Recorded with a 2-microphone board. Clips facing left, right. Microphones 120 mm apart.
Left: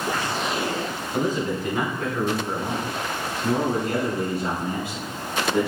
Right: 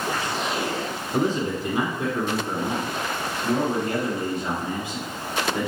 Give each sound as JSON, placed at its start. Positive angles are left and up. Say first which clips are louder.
{"t": 1.1, "sound": "a man speaking", "louder": "right 1 dB", "side_deg": -35, "distance_m": 1.6}